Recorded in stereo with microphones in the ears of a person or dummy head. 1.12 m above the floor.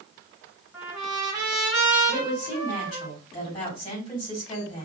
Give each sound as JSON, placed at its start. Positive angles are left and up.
{"t": 0.7, "sound": "a trumpet", "side_deg": 5, "distance_m": 3.0}
{"t": 2.1, "sound": "a woman speaking", "side_deg": 30, "distance_m": 3.5}